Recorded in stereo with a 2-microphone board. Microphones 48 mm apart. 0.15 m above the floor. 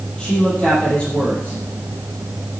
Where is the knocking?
I don't hear knocking.